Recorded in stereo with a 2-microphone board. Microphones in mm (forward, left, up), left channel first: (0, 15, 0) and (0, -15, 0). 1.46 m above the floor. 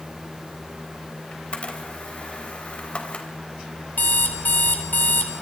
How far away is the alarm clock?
About 3.5 m.